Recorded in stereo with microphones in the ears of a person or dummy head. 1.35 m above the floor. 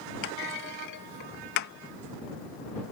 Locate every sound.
0.2 s a clunk: 65° left (ahead or behind)